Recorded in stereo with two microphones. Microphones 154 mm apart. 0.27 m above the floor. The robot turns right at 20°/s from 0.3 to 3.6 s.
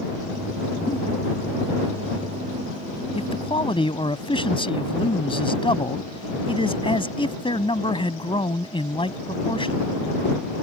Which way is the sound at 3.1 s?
45° left (ahead or behind).